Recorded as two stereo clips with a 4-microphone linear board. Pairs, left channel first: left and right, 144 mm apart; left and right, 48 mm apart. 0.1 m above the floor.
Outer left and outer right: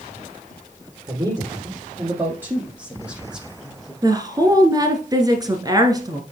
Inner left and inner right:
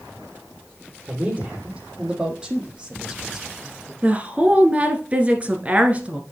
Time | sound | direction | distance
1.1 | a man speaking | 25° right (ahead or behind) | 3 m
4.0 | a woman speaking | 25° right (ahead or behind) | 1.5 m